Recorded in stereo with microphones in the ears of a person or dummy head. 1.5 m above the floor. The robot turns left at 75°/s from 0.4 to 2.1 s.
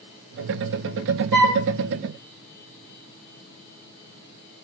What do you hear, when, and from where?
1.3 s a flute: centre (ahead or behind), 0.9 m; by 1.6 s 25° left (ahead or behind), 0.9 m